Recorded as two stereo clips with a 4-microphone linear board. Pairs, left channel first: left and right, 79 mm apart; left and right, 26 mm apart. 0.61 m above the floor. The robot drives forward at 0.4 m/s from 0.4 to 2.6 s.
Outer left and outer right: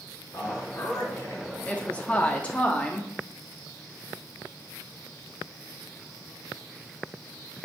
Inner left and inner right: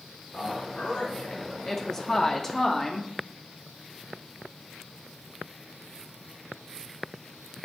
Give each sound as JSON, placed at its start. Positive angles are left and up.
{"t": 0.3, "sound": "a man speaking", "side_deg": 45, "distance_m": 1.3}
{"t": 1.6, "sound": "a woman speaking", "side_deg": 20, "distance_m": 0.6}